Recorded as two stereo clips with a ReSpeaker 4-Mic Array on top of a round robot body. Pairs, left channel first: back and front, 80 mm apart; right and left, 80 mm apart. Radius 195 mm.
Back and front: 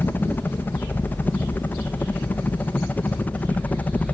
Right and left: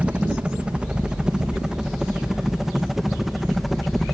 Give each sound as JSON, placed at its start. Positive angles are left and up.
{"t": 0.0, "sound": "a helicopter", "azimuth_deg": 150}